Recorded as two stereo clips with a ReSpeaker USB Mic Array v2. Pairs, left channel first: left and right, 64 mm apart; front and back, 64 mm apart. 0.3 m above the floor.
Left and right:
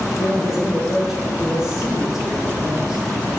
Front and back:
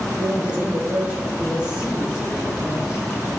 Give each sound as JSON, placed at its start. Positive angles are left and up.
{"t": 0.2, "sound": "a man speaking", "azimuth_deg": -145, "distance_m": 0.9}